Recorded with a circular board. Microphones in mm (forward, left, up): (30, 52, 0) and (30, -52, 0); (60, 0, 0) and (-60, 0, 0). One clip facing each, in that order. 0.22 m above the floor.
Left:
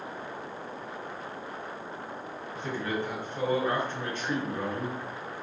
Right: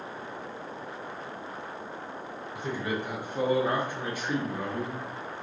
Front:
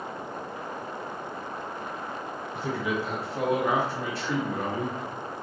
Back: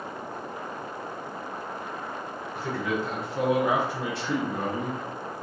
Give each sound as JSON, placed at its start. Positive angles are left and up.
{"t": 2.5, "sound": "a man speaking", "azimuth_deg": -35, "distance_m": 1.5}